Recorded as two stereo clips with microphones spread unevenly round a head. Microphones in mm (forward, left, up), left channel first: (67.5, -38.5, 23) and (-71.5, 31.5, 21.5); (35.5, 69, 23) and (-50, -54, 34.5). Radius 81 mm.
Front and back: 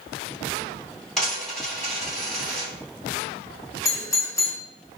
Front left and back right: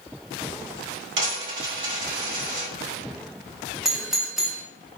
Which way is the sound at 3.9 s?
30° right.